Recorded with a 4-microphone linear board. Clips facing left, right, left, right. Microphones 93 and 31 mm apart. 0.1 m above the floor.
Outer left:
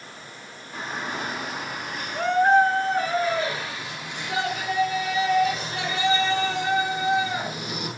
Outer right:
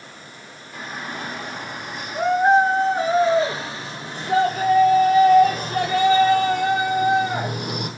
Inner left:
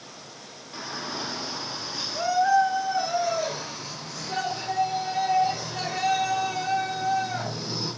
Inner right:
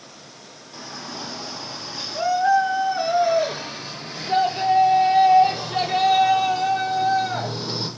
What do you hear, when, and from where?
0.7 s a shout: 25° left (ahead or behind), 1.5 m; by 7.9 s 55° right (ahead or behind), 4 m